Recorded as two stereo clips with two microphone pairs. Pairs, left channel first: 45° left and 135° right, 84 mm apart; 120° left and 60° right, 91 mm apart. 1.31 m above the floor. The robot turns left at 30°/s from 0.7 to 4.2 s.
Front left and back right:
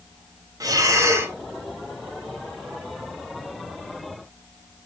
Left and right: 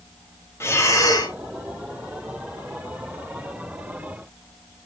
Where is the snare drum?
No snare drum in this recording.